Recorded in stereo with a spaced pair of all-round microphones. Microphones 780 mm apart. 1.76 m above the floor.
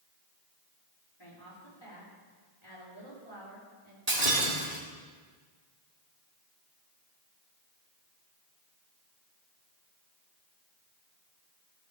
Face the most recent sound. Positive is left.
turn(degrees=-50)  # may be behind; listen again after turning